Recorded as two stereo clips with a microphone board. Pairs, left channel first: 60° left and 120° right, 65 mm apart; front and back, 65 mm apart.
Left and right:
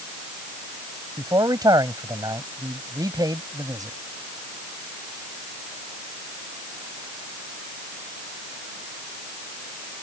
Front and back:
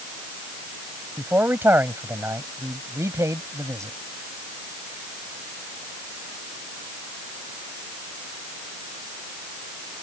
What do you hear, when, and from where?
1.2 s a man speaking: 120° right; by 4.0 s 140° right